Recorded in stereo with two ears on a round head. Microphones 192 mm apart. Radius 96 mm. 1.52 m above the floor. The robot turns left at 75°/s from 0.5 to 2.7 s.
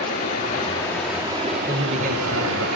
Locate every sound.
0.0 s running water: 40° left, 2 m; by 2.8 s 125° right, 2 m
1.7 s a man speaking: 20° right, 0.7 m; by 2.7 s 95° right, 0.7 m